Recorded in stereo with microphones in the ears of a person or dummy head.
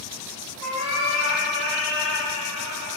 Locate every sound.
0.6 s a cat meowing: 75° right (ahead or behind), 4.5 m